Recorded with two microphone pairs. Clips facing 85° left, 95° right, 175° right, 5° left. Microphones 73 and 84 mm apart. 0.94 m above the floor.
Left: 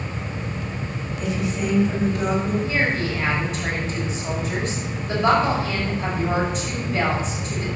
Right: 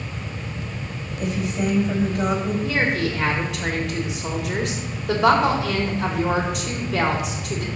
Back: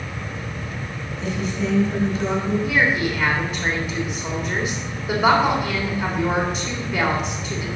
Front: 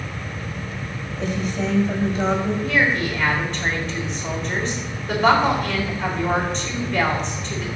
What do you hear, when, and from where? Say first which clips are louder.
1.2 s a woman speaking: right 1 dB, front 1 dB; 40° right, 4.5 m
2.6 s a woman speaking: right 1 dB, even; 95° right, 3.5 m